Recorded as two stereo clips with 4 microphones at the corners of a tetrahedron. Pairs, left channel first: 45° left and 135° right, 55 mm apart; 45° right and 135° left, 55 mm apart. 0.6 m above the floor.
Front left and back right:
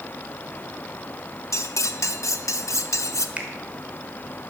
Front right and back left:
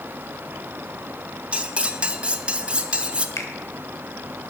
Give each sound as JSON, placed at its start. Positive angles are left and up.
{"t": 1.5, "sound": "cutlery clinking", "azimuth_deg": 70, "distance_m": 0.7}
{"t": 3.4, "sound": "a finger snap", "azimuth_deg": -70, "distance_m": 1.6}